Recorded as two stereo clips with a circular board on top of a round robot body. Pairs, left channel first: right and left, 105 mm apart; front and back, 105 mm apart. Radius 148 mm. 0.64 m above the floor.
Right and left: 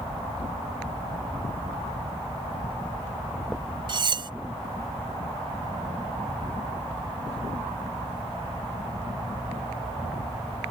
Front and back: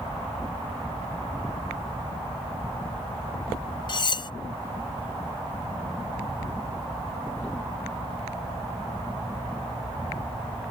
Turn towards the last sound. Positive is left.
turn(degrees=45)